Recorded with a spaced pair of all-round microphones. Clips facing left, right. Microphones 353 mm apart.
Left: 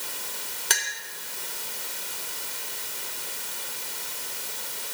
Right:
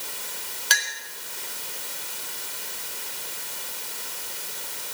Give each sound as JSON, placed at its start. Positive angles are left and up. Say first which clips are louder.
{"t": 0.7, "sound": "a clink", "louder": "left 1 dB", "side_deg": 60, "distance_m": 4.5}